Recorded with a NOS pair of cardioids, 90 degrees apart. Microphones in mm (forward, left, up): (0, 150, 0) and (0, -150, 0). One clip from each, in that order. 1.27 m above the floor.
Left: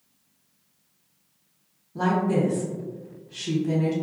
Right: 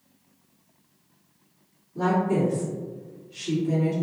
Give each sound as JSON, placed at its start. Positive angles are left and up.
{"t": 1.9, "sound": "a woman speaking", "azimuth_deg": 65, "distance_m": 1.2}